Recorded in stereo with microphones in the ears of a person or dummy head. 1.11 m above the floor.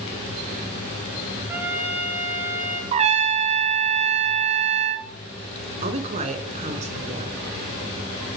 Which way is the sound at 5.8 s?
35° right (ahead or behind).